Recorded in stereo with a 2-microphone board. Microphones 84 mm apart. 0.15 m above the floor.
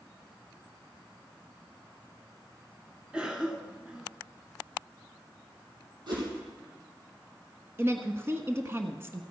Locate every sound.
3.1 s a cough: 10° right (ahead or behind), 1.9 m
6.1 s a whoosh: 60° right (ahead or behind), 5 m
7.8 s a woman speaking: 30° right (ahead or behind), 1.2 m